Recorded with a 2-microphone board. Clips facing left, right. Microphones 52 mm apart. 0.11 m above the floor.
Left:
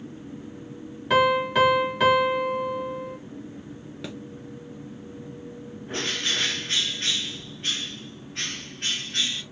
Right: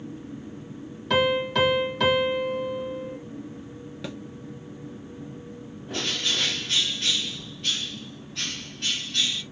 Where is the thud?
Centre (ahead or behind), 0.7 m.